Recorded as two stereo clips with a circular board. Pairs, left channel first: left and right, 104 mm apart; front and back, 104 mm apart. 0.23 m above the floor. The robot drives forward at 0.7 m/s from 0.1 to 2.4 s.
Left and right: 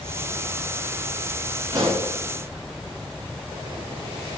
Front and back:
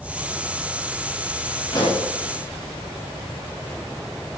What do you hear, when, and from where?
1.7 s a pop: 45° right, 6.5 m